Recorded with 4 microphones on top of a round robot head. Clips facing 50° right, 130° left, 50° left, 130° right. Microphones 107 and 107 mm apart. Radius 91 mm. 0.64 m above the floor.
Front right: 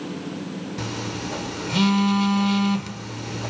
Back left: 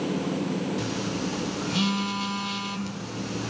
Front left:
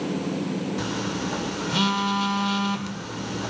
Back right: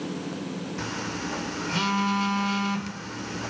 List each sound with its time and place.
0.8 s a phone buzzing: 25° right, 2.0 m